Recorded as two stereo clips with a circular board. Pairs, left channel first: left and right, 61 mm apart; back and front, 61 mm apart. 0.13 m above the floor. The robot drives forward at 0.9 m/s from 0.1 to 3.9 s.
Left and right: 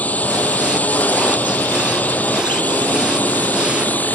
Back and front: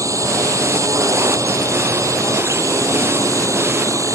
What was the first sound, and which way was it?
A drone, 30° left.